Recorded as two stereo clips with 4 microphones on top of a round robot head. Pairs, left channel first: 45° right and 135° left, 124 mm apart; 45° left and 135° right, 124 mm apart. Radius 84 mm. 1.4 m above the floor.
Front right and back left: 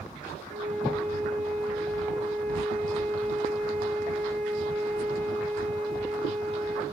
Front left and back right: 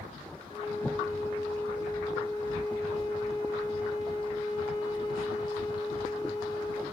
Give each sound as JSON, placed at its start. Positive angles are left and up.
{"t": 0.5, "sound": "a flute", "azimuth_deg": 100, "distance_m": 4.5}